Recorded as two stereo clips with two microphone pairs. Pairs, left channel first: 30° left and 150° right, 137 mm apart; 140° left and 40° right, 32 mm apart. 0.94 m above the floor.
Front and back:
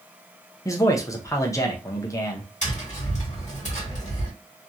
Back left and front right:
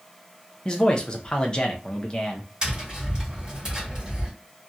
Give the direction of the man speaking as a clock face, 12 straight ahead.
9 o'clock.